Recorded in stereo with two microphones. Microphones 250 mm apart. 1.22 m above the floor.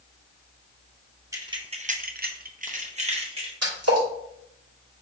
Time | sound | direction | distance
1.3 | keys jangling | 15° right (ahead or behind) | 0.8 m
3.6 | a splash | 80° right | 2 m